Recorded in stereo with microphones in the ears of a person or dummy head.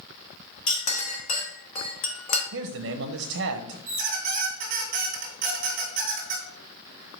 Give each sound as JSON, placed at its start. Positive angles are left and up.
{"t": 0.7, "sound": "a clink", "side_deg": 40, "distance_m": 1.4}
{"t": 2.5, "sound": "a man speaking", "side_deg": -65, "distance_m": 0.6}
{"t": 3.9, "sound": "a squeak", "side_deg": -50, "distance_m": 1.6}